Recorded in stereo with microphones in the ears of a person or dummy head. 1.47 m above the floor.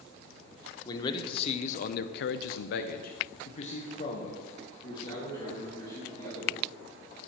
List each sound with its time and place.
0.8 s a man speaking: 20° left (ahead or behind), 1.0 m